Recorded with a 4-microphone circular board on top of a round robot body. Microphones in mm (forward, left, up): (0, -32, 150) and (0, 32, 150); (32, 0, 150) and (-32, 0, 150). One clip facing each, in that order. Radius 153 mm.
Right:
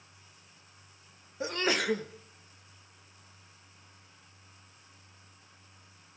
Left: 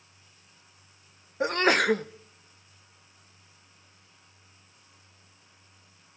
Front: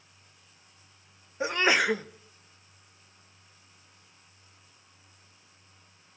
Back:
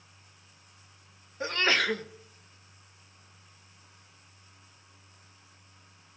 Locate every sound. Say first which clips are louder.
1.4 s a sneeze: left 7 dB, front 3 dB; 70° left, 0.9 m